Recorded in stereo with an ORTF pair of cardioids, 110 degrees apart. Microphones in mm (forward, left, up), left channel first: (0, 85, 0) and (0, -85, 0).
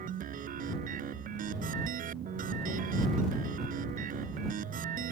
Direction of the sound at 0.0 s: 55° right.